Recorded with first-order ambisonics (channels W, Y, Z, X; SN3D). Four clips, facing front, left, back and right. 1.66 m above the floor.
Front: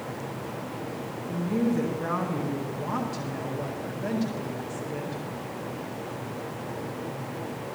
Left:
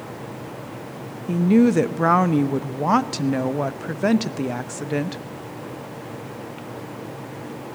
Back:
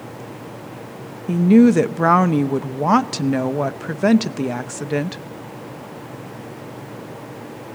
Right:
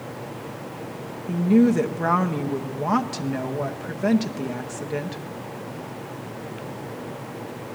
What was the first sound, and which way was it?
A woman speaking, 160° left.